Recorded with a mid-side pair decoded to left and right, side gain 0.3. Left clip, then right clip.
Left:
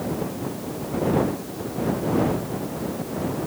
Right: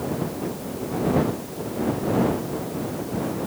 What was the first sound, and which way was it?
Only background noise.